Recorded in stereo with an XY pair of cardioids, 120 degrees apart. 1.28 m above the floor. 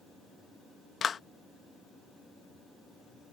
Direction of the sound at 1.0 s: 40° left.